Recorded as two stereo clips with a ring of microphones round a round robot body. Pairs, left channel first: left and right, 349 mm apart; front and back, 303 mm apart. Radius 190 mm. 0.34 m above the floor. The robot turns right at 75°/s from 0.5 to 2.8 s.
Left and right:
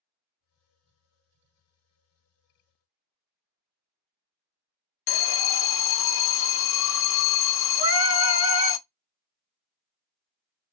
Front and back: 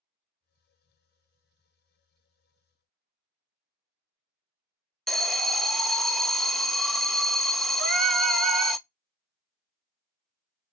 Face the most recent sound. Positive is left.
turn(degrees=-135)